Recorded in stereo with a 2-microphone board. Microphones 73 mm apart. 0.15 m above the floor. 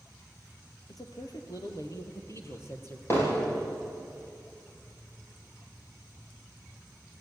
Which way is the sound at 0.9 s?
65° left (ahead or behind).